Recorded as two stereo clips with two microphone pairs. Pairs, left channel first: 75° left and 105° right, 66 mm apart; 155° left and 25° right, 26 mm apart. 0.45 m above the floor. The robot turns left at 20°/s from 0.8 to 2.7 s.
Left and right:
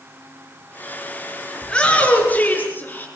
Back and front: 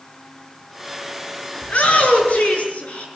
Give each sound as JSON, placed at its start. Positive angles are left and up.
{"t": 1.6, "sound": "a shout", "azimuth_deg": 150, "distance_m": 6.5}